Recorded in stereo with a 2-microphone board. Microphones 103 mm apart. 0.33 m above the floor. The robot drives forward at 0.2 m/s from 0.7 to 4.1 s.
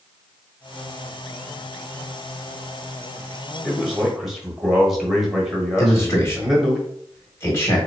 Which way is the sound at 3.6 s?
5° right (ahead or behind).